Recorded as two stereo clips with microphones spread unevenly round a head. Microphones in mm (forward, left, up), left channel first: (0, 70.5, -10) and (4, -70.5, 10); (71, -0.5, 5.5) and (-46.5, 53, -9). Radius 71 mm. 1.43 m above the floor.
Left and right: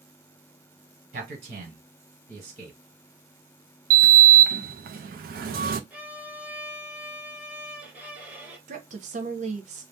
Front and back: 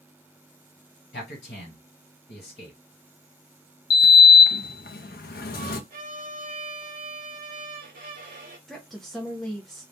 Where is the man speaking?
55° right, 1.5 m.